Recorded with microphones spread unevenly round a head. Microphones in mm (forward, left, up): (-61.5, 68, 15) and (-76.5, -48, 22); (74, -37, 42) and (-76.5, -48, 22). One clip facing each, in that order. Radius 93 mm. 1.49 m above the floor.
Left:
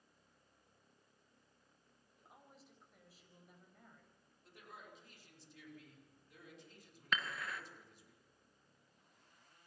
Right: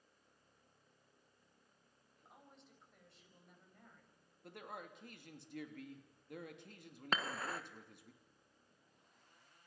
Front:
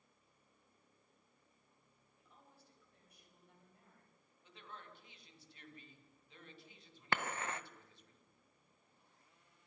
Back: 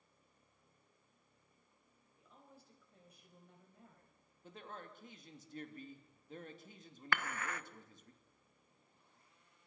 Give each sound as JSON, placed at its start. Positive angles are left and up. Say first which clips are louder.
{"t": 2.2, "sound": "a woman speaking", "louder": "even, back 4 dB", "azimuth_deg": 170, "distance_m": 6.5}
{"t": 4.4, "sound": "a man speaking", "louder": "right 7 dB, back 5 dB", "azimuth_deg": -130, "distance_m": 3.0}
{"t": 7.1, "sound": "dishes clattering", "louder": "right 2 dB, front 1 dB", "azimuth_deg": -45, "distance_m": 0.7}